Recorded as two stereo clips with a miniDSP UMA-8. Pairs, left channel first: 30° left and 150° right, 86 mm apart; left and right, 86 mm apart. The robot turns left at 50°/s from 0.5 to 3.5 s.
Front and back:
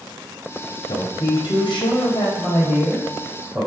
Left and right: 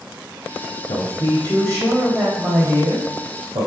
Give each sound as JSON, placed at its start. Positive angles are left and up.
{"t": 0.9, "sound": "a man speaking", "azimuth_deg": 65, "distance_m": 3.0}